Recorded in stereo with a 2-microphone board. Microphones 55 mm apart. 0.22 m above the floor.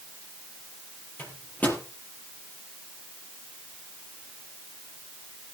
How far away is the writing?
No writing in this recording.